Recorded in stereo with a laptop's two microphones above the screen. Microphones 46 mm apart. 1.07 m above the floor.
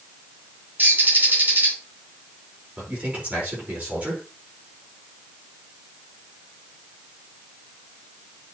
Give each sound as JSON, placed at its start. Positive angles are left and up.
{"t": 0.8, "sound": "a bird", "side_deg": -45, "distance_m": 2.0}
{"t": 2.8, "sound": "a man speaking", "side_deg": -30, "distance_m": 4.5}